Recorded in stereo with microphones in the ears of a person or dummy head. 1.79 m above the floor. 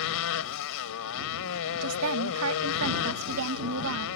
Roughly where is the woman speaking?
Right.